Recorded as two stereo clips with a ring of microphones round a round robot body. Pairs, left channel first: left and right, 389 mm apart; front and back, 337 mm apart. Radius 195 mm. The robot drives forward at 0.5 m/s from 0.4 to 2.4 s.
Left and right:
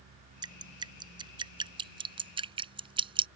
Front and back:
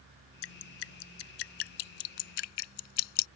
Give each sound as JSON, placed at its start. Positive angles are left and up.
{"t": 0.4, "sound": "dripping", "azimuth_deg": -10}